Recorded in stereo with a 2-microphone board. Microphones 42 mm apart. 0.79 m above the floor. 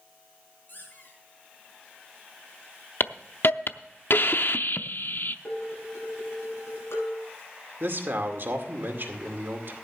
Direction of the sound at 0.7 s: 45° left (ahead or behind).